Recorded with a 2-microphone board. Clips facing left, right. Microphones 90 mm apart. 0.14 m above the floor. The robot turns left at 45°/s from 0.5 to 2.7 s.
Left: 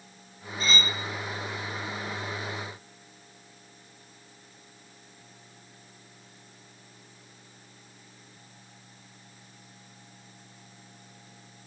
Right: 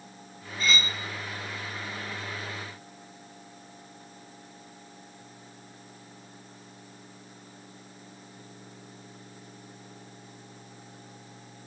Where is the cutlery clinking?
30° left (ahead or behind), 1.9 m; by 1.0 s 45° left (ahead or behind), 1.9 m.